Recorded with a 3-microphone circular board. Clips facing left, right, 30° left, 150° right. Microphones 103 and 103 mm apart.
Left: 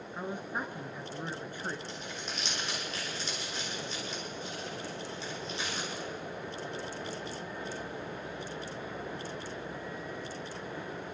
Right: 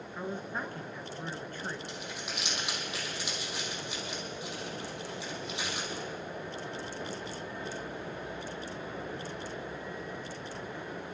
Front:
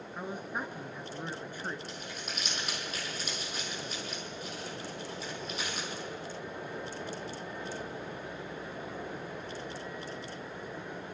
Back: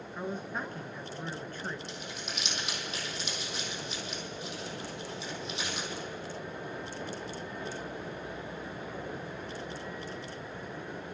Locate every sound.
0.1 s a man speaking: 70° left, 1.0 m
1.9 s crumpling: 15° right, 4 m